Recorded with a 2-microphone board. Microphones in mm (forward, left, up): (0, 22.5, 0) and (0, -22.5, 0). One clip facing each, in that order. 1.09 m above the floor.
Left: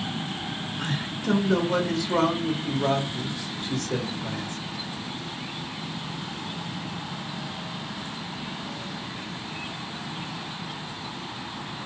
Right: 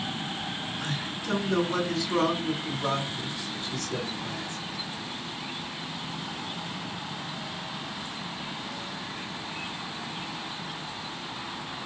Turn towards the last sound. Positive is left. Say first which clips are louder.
# left 3 dB
turn(degrees=75)  # may be behind; listen again after turning